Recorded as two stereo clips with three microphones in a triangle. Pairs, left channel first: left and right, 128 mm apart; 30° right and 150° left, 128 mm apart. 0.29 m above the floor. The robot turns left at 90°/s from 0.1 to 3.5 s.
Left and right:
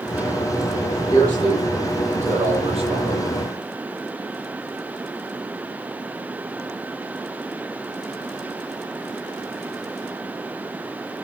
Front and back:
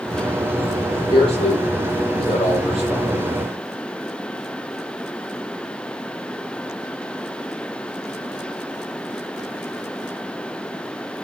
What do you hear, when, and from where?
1.1 s a man speaking: 30° left, 9.5 m; by 3.3 s 165° right, 9.5 m